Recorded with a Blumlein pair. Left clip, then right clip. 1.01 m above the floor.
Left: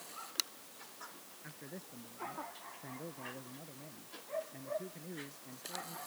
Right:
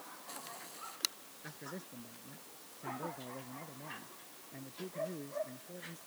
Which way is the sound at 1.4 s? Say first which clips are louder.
Right 4 dB; 5° right.